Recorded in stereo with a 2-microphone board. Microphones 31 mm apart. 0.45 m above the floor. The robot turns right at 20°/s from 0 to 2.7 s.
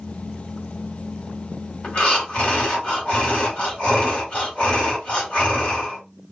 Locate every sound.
1.8 s breathing: 45° left (ahead or behind), 1.7 m